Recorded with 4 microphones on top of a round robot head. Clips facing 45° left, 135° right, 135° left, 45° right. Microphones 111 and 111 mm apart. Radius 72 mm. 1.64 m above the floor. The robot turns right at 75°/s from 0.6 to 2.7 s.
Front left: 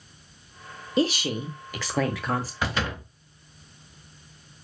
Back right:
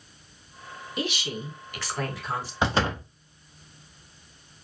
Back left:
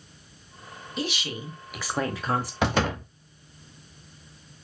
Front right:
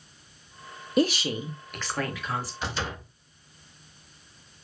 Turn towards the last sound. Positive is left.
turn(degrees=170)